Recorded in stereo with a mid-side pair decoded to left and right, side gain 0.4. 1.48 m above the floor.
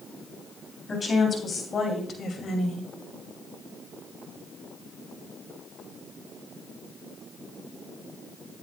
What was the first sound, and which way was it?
A woman speaking, 35° left.